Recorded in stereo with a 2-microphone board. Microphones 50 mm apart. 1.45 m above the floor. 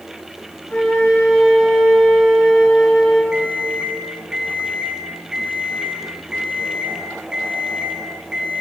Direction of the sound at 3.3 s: 15° right (ahead or behind).